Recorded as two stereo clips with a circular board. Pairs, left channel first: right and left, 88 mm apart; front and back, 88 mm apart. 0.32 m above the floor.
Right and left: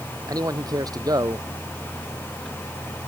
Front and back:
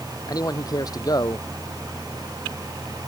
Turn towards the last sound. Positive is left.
turn(degrees=45)